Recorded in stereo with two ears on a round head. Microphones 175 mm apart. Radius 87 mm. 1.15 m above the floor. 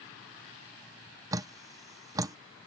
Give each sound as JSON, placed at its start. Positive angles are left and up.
{"t": 1.3, "sound": "dripping", "side_deg": -20}